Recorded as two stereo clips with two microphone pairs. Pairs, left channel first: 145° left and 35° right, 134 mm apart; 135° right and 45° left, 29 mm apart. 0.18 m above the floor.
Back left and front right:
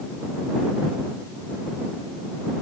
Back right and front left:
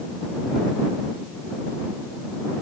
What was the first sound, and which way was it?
Only background noise.